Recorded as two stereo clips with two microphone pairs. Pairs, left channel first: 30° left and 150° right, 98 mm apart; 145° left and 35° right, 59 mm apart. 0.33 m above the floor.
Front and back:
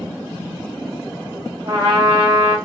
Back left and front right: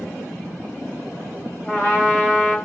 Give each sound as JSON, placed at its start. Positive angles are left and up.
{"t": 1.6, "sound": "a trumpet", "azimuth_deg": -155, "distance_m": 1.4}